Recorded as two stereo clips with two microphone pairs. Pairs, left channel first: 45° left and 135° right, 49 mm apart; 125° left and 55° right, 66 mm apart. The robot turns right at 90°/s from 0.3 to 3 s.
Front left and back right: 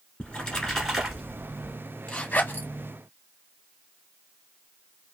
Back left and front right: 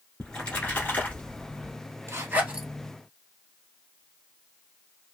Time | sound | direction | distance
0.2 | a splash | 70° left | 1.5 m
2.1 | a zipper | 25° right | 1.7 m